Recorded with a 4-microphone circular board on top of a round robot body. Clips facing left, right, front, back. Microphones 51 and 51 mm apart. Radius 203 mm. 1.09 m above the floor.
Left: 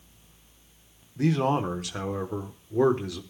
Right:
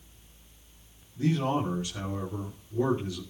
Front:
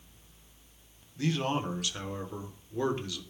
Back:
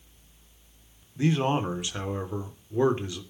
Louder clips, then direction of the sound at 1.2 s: Left 3 dB, back 5 dB; 110° left.